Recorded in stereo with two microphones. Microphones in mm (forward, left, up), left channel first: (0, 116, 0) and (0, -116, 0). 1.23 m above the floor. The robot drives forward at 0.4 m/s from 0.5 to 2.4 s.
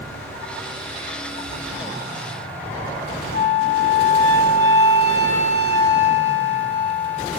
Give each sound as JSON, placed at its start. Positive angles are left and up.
{"t": 3.3, "sound": "a flute", "side_deg": 70, "distance_m": 0.7}